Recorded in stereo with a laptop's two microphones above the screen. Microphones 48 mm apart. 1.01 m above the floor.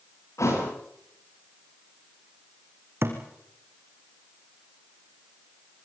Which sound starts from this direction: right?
A thud, at 3.0 s.